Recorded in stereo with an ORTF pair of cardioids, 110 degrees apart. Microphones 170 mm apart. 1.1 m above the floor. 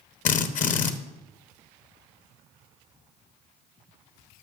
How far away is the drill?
About 0.9 m.